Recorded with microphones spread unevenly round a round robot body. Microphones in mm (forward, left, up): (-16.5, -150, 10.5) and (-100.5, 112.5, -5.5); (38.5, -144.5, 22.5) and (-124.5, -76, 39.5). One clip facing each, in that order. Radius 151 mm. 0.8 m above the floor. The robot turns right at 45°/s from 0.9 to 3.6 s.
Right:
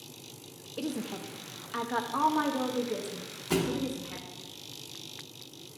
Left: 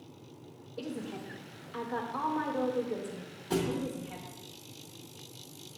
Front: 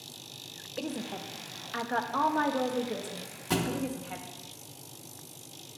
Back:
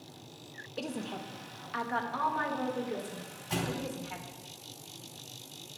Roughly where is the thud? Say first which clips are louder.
Right 2 dB, front 5 dB; ahead.